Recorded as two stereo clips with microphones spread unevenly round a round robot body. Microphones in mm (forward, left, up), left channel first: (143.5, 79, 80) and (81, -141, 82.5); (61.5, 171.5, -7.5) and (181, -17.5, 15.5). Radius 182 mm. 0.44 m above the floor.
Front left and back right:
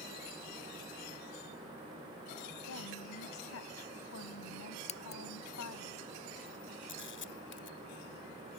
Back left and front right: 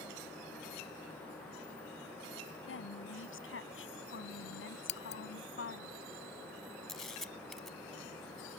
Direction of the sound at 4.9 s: 130° left.